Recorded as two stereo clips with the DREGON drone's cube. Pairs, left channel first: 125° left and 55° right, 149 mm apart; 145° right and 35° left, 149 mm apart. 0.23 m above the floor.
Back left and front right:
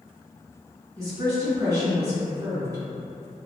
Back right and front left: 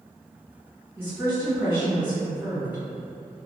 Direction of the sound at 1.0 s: 25° right.